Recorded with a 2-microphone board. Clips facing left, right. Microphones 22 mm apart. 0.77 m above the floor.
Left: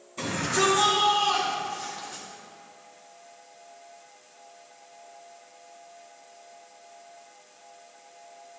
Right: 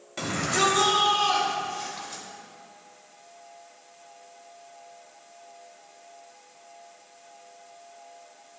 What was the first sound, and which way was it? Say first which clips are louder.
A shout: right 1 dB; 60° right (ahead or behind).